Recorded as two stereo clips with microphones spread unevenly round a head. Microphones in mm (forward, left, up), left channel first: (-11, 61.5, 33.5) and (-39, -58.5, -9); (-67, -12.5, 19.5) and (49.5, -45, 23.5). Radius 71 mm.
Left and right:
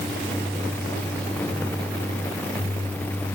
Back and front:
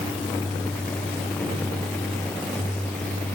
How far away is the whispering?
No whispering in this recording.